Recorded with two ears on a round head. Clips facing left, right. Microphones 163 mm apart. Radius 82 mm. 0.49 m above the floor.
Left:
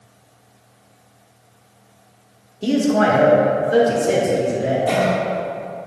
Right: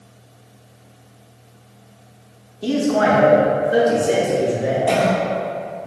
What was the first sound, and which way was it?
A man speaking, 20° left (ahead or behind).